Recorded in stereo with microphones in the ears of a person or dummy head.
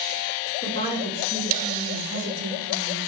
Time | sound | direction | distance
0.6 | a woman speaking | 45° left (ahead or behind) | 2 m